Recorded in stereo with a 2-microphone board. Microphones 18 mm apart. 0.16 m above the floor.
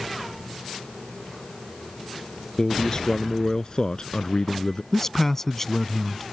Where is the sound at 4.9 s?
20° left (ahead or behind).